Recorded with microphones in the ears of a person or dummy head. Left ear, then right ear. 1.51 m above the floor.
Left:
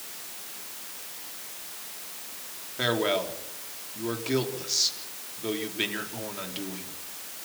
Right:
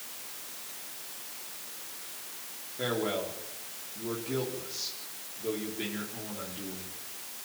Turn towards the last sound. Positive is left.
turn(degrees=50)  # may be behind; listen again after turning